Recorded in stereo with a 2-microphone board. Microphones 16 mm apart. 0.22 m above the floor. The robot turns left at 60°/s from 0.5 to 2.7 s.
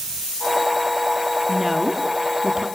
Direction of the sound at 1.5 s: 15° left.